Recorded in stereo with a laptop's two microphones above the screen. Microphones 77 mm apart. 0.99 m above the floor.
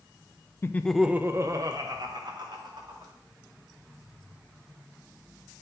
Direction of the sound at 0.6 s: 30° left (ahead or behind).